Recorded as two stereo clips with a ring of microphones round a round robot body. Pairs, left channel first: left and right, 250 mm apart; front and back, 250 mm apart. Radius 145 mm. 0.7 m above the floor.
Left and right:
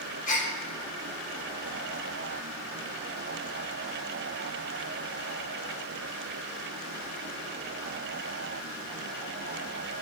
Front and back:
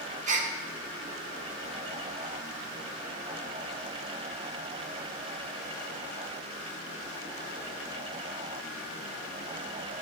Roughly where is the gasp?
Behind left.